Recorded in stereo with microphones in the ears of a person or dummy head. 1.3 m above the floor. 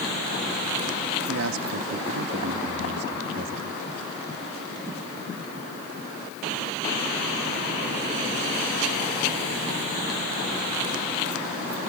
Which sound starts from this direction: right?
A man speaking, at 1.3 s.